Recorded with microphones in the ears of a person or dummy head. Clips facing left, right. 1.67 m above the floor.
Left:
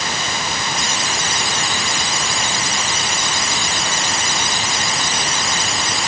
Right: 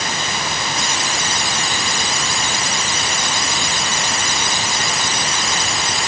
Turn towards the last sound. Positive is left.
No sound to turn to.